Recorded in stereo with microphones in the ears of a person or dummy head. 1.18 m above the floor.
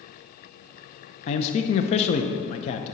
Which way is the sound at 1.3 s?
40° left (ahead or behind).